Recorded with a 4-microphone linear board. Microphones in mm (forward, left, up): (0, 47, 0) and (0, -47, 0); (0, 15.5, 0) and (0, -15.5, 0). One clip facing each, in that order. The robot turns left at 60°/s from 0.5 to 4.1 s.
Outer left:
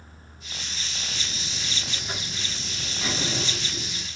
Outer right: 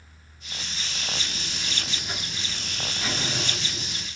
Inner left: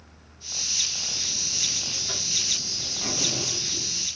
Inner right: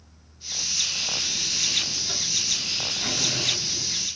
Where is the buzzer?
75° left, 2.5 m; by 4.1 s 100° right, 2.5 m.